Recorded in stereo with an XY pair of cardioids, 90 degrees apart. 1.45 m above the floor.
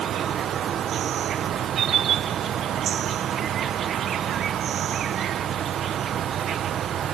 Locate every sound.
0.0 s an insect: 70° right